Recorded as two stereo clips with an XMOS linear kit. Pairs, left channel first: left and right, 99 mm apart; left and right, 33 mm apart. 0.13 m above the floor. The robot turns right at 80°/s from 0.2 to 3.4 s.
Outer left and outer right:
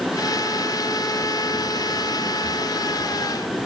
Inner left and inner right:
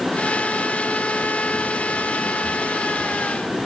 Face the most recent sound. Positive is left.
No sound to turn to.